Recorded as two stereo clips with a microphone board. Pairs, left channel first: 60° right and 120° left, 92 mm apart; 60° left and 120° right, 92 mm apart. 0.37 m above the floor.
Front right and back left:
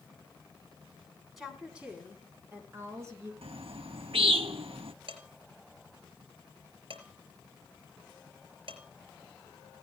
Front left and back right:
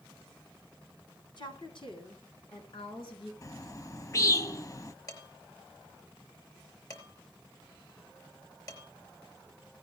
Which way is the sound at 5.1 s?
110° left.